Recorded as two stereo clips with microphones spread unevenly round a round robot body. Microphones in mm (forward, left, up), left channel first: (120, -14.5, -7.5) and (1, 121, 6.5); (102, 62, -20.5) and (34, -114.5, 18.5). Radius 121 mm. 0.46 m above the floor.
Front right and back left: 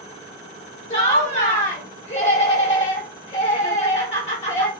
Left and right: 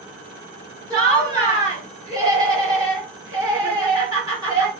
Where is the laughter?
35° right, 1.4 m.